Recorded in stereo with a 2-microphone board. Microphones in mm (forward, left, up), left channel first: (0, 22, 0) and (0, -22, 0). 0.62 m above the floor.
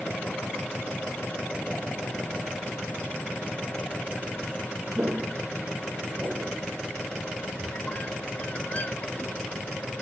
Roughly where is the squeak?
Left.